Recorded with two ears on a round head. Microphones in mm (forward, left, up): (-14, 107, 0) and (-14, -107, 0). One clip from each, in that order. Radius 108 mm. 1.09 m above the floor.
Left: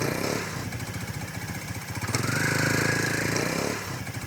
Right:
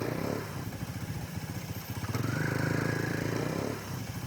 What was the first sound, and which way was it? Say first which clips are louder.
A vehicle: left 6 dB; 60° left (ahead or behind).